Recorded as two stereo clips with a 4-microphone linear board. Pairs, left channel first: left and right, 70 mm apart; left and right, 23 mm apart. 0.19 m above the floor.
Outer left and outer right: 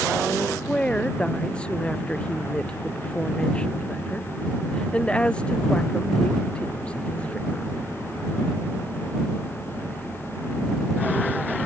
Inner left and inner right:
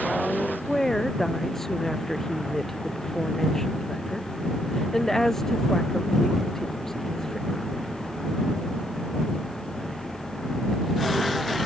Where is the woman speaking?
15° left (ahead or behind).